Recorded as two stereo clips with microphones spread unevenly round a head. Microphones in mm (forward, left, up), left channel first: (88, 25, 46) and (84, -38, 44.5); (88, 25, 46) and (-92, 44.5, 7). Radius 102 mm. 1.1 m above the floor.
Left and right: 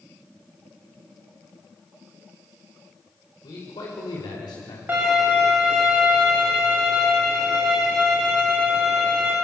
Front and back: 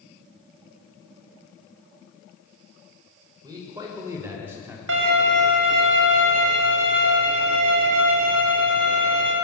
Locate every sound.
3.4 s a man speaking: 105° left, 5.5 m; by 4.8 s 95° left, 3.5 m
4.9 s a violin: 165° right, 3 m